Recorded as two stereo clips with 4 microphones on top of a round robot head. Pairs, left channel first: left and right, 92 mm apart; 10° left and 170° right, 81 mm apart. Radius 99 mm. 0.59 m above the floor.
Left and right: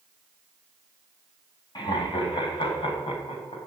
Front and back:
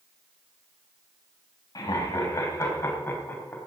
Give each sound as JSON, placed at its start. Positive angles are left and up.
{"t": 1.8, "sound": "laughter", "azimuth_deg": 50, "distance_m": 4.5}